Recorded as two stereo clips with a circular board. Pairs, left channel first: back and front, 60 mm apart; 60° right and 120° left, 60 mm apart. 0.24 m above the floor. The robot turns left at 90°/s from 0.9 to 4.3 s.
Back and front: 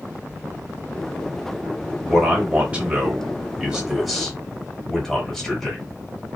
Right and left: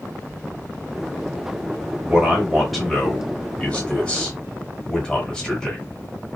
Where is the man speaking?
90° left, 1.1 m; by 5.8 s 110° right, 1.1 m.